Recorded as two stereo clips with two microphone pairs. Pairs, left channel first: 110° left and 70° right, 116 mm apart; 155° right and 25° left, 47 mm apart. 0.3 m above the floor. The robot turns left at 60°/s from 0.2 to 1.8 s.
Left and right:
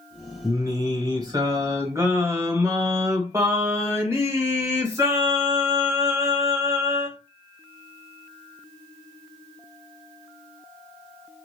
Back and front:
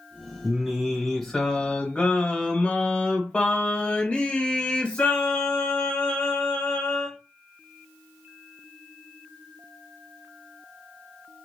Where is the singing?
30° right, 1.3 m; by 7.2 s 110° right, 1.3 m.